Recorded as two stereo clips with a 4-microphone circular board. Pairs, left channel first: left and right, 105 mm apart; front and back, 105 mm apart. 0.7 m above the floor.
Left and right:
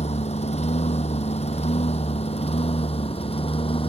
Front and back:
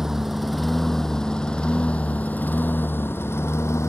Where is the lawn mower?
95° left; by 3.9 s 65° left.